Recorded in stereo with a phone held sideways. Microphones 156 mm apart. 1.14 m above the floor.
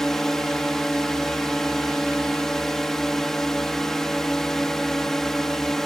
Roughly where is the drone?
Centre.